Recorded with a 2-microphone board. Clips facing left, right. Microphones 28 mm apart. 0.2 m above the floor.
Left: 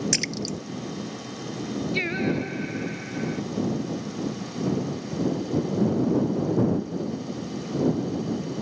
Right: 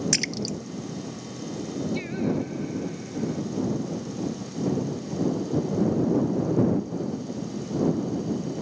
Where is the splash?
Centre (ahead or behind).